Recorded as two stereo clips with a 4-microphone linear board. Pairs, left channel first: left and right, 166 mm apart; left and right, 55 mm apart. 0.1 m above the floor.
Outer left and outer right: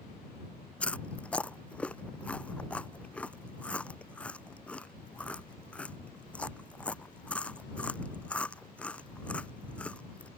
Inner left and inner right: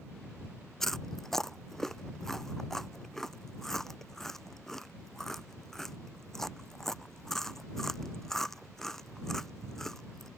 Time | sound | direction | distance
0.8 | chewing | 5° left (ahead or behind) | ?